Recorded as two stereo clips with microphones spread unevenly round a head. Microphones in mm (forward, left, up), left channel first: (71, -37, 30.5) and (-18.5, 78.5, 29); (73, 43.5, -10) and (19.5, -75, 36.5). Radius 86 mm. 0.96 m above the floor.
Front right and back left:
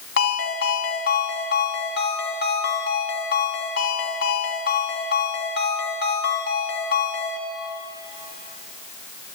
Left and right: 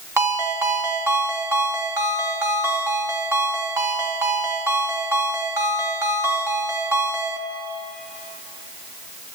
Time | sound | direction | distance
0.2 | a ringtone | 50° right | 3 m